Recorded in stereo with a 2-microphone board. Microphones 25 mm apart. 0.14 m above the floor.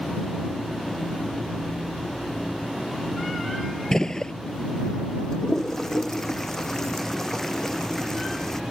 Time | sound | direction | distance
3.9 | a gunshot | 25° left (ahead or behind) | ?
5.3 | a toilet flushing | 20° left (ahead or behind) | ?